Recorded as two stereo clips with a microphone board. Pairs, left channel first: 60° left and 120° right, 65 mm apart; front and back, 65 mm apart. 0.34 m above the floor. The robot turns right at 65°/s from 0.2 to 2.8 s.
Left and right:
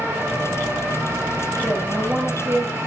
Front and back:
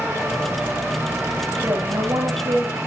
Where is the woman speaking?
120° left, 8.5 m; by 2.8 s 165° right, 8.5 m.